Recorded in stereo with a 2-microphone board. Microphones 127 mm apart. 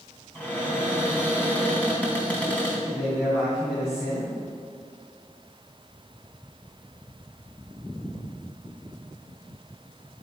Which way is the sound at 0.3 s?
10° left (ahead or behind).